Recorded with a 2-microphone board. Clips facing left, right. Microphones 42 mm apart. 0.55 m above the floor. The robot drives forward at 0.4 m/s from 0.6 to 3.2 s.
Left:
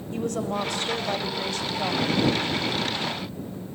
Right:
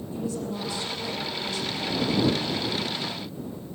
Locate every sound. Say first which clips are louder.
0.1 s a woman speaking: left 4 dB; 60° left (ahead or behind), 2.5 m; by 2.2 s 50° left (ahead or behind), 2.5 m